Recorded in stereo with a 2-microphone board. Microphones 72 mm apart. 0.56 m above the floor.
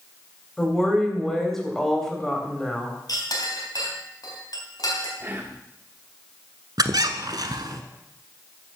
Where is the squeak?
65° right (ahead or behind), 0.9 m.